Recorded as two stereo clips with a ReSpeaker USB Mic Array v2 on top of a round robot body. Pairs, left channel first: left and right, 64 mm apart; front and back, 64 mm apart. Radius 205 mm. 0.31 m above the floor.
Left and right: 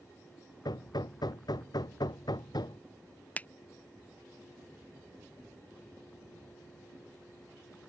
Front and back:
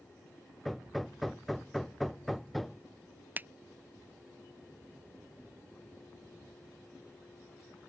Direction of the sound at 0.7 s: 90° left.